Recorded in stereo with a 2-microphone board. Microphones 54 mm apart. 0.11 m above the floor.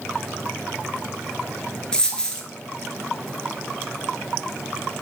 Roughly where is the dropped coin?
Centre.